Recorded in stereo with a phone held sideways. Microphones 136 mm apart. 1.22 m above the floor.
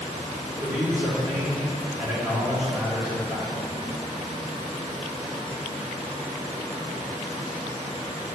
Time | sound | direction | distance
0.6 | a man speaking | 30° right (ahead or behind) | 3 m